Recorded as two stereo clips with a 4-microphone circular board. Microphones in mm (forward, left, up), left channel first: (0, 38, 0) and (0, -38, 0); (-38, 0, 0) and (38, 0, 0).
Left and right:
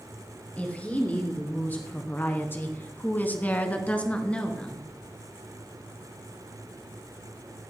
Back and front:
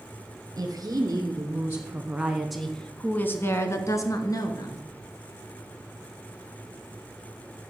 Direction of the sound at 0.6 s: 25° left.